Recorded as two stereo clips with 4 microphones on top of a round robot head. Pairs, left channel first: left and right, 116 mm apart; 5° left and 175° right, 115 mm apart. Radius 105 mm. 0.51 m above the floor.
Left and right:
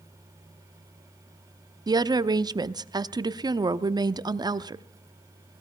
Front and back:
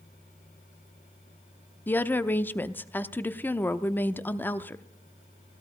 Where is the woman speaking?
60° right, 0.8 m.